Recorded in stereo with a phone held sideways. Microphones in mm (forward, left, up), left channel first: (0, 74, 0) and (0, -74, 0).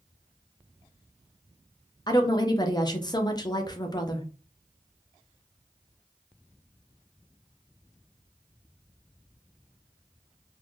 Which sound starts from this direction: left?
A woman speaking, at 2.1 s.